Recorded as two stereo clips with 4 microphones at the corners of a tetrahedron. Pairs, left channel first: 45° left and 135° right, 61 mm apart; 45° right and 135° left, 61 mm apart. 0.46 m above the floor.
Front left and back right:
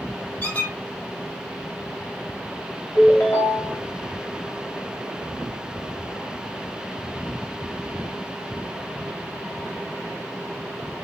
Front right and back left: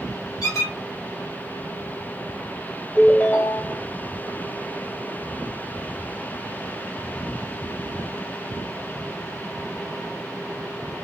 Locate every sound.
0.4 s a squeak: 20° right, 1.1 m
3.0 s a ringtone: 10° left, 1.1 m